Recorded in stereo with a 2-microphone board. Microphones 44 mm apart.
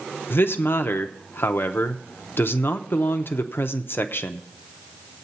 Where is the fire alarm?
I don't hear a fire alarm.